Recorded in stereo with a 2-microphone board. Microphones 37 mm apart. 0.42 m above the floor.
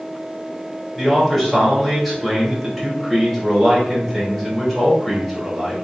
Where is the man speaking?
5° left (ahead or behind), 1.0 m.